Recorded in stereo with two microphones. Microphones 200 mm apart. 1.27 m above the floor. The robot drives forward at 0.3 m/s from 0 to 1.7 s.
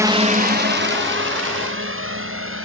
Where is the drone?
15° right (ahead or behind); by 2.6 s 85° right.